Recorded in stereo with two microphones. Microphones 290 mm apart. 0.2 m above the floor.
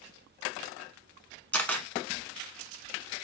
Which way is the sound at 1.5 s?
5° left (ahead or behind).